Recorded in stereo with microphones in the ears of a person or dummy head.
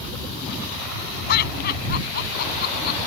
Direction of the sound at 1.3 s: 60° left (ahead or behind).